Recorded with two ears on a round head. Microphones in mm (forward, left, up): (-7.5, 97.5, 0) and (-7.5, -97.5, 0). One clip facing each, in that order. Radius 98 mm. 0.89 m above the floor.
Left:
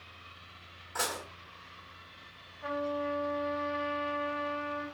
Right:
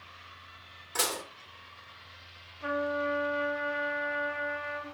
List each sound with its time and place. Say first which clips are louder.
0.9 s dishes clattering: right 2 dB; 45° right (ahead or behind), 1.6 m
2.6 s a trumpet: right 2 dB; 45° right (ahead or behind), 1.7 m